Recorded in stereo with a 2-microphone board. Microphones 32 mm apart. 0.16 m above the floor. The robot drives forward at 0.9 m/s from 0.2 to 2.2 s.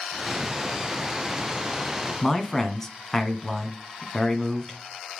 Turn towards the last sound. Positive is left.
turn(degrees=15)  # may be behind; listen again after turning